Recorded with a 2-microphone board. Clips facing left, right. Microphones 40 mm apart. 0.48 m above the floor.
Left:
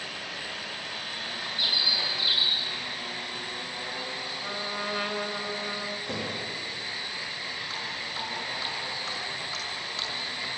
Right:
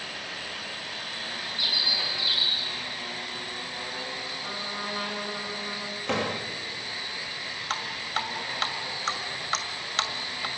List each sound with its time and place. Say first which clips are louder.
1.6 s a bird: even; 15° left (ahead or behind), 7.5 m
4.4 s a trumpet: left 3 dB; 30° left (ahead or behind), 2.5 m
6.1 s a door slam: right 4 dB; 65° right (ahead or behind), 1.5 m
7.7 s dripping: right 3 dB; 65° right (ahead or behind), 2 m